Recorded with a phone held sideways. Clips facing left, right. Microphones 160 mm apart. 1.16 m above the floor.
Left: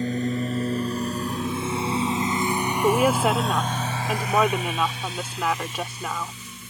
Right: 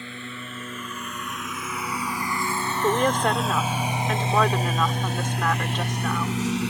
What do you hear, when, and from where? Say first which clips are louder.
0.0 s a lawn mower: left 13 dB; 40° left (ahead or behind); by 6.7 s 75° right (ahead or behind)
2.8 s a woman speaking: left 2 dB; 10° left (ahead or behind)